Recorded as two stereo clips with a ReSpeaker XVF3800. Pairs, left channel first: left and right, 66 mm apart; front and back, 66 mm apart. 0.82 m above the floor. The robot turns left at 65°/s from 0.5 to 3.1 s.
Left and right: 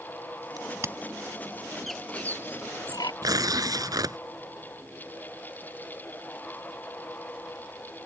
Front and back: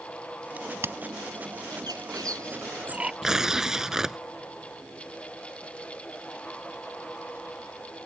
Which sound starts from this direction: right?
Tearing paper, at 3.2 s.